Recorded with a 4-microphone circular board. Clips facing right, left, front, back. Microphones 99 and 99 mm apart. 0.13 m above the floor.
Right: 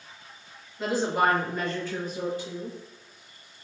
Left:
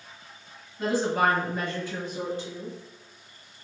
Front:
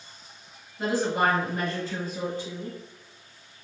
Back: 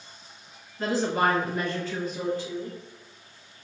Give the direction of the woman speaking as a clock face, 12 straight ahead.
2 o'clock.